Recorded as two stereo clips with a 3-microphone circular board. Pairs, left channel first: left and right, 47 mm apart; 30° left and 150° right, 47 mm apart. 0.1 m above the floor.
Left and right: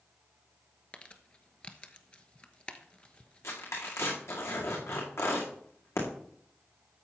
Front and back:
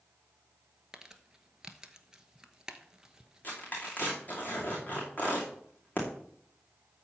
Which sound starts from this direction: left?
Tearing paper, at 3.4 s.